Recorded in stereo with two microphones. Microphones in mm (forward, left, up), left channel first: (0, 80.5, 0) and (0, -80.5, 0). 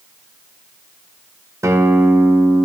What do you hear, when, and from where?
1.6 s a guitar: 20° right (ahead or behind), 1.0 m